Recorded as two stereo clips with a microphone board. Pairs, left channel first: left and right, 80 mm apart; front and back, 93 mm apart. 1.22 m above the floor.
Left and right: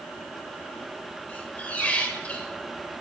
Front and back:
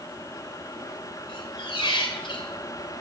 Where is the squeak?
20° left, 2.0 m.